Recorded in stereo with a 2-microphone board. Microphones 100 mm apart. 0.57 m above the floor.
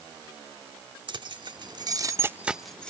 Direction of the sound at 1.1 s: 50° right (ahead or behind).